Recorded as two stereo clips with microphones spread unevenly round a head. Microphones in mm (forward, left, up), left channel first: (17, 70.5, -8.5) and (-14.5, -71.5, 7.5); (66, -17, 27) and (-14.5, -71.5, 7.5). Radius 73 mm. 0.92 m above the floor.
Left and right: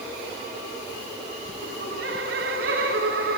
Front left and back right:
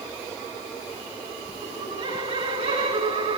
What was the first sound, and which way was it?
Laughter, 130° right.